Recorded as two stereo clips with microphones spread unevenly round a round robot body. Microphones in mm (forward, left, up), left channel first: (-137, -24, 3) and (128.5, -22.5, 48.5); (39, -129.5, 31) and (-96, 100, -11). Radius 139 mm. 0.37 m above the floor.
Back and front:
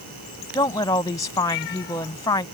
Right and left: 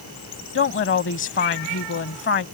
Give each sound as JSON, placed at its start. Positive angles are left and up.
{"t": 0.6, "sound": "a woman speaking", "azimuth_deg": -105}